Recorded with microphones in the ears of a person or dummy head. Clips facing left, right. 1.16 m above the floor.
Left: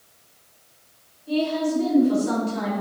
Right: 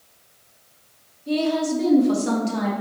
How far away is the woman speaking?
About 1.1 m.